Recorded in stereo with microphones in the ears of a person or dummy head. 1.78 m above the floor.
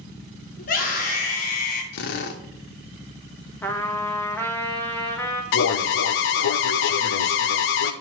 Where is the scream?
45° left (ahead or behind), 2.5 m; by 1.8 s 50° left (ahead or behind), 1.7 m.